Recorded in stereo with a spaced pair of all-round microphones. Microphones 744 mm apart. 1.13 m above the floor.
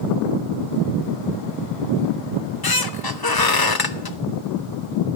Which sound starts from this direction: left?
A squeak, at 2.3 s.